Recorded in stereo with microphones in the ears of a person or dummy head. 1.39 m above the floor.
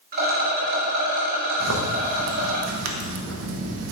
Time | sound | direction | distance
0.1 | a rattle | 50° right (ahead or behind) | 1.9 m
1.6 | a zipper | 70° right (ahead or behind) | 0.8 m